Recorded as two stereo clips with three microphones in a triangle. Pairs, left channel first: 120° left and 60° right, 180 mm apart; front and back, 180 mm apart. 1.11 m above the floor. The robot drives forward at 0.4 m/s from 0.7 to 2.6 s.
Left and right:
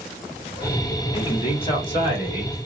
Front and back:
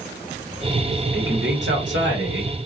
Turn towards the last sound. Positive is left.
turn(degrees=180)